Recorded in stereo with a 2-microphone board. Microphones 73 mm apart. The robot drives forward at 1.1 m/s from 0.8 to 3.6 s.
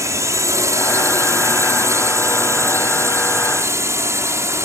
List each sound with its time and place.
0.0 s a drone: 45° right (ahead or behind); by 4.7 s 40° right (ahead or behind)